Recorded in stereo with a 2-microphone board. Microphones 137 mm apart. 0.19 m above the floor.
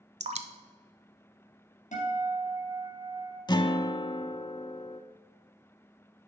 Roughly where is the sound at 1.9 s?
Left.